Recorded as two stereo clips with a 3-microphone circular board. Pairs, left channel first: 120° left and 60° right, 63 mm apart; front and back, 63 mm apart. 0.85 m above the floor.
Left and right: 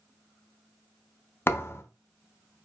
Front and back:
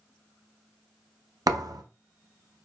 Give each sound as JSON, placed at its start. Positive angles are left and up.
{"t": 1.5, "sound": "a thud", "azimuth_deg": 170, "distance_m": 0.5}